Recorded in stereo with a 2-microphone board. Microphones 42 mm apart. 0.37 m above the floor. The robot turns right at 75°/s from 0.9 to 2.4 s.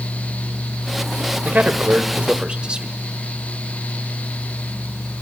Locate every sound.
1.4 s a man speaking: 105° right, 1.4 m; by 2.9 s 35° right, 1.4 m